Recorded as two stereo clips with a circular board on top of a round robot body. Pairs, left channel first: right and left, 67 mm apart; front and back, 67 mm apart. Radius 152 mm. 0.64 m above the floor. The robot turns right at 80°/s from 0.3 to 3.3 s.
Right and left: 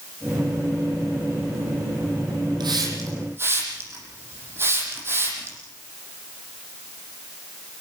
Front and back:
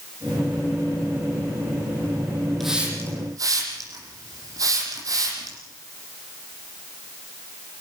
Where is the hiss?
90° left, 7 m; by 5.6 s 145° left, 7 m.